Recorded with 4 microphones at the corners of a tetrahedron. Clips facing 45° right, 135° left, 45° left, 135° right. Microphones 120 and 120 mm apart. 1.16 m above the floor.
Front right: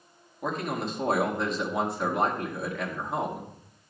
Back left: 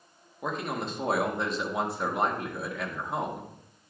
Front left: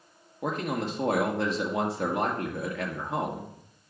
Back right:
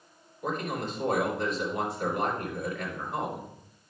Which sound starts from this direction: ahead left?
A man speaking, at 0.4 s.